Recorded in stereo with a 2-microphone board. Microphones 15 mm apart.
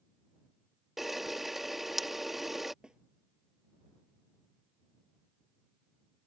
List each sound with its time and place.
1.0 s a camera shutter: 20° right (ahead or behind)
2.8 s a snare drum: 65° right (ahead or behind)